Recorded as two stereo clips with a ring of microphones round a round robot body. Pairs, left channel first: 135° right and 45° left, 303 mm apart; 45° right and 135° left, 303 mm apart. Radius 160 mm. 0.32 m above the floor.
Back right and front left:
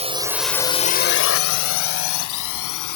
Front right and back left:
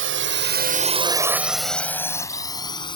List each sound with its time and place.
0.0 s a drone: 105° left; by 3.0 s 120° right